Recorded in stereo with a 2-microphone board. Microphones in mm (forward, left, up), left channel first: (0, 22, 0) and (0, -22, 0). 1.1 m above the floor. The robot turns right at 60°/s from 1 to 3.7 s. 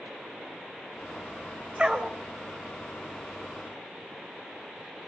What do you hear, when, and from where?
1.8 s a dog barking: 20° right (ahead or behind), 1.7 m; by 2.1 s 5° right (ahead or behind), 1.7 m